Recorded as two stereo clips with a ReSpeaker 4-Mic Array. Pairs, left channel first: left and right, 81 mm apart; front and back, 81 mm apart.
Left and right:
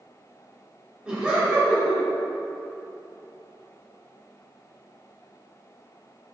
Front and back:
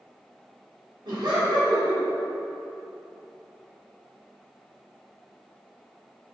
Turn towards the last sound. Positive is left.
turn(degrees=-165)